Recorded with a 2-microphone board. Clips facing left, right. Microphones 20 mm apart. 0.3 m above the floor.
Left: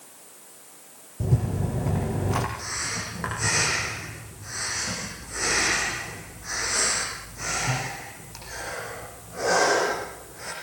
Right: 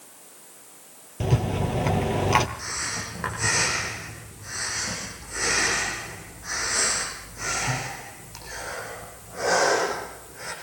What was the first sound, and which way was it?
A rattle, 80° right.